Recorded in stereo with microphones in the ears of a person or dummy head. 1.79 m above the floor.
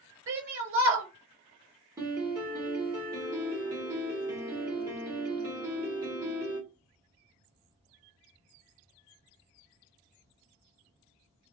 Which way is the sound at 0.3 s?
55° right (ahead or behind).